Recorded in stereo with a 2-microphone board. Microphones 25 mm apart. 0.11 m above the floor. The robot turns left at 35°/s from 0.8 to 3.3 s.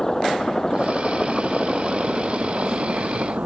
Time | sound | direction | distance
0.0 | a helicopter | 25° left | ?